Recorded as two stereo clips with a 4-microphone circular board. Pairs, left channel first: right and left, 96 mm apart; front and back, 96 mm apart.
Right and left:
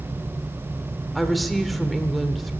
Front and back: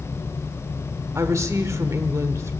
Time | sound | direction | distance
1.1 | a woman speaking | straight behind | 1.2 m